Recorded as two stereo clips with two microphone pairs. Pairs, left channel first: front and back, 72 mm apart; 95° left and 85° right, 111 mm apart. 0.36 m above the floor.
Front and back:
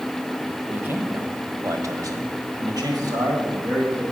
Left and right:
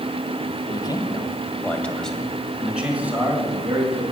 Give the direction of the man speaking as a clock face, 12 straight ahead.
8 o'clock.